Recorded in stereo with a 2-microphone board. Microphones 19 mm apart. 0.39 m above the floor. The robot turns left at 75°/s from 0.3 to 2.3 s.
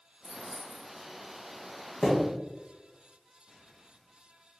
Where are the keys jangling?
10° right, 1.5 m; by 1.1 s 70° right, 1.5 m.